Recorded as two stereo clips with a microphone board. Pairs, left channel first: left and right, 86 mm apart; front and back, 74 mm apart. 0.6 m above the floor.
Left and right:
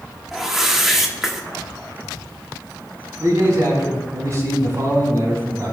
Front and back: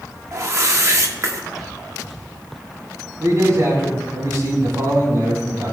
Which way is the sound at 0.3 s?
175° right.